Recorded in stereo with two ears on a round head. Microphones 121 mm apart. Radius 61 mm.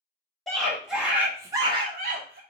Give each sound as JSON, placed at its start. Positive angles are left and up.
{"t": 0.5, "sound": "a scream", "side_deg": 0, "distance_m": 1.8}